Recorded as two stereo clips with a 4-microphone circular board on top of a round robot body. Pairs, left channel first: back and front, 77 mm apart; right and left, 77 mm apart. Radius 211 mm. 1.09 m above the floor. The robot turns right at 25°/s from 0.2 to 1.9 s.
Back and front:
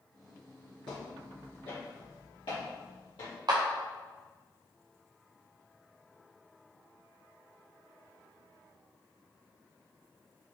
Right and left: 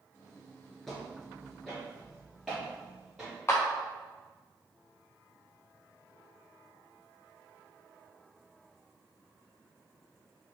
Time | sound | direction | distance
0.9 | footsteps | 175° right | 1.2 m
3.5 | a clap | 30° right | 0.5 m